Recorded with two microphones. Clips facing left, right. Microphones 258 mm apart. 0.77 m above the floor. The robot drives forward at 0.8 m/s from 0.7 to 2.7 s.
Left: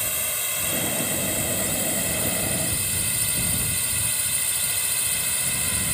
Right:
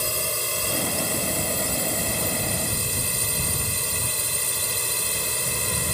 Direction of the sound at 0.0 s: 45° right (ahead or behind).